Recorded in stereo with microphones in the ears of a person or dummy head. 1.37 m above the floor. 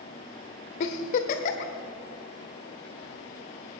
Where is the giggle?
45° left (ahead or behind), 1.5 m.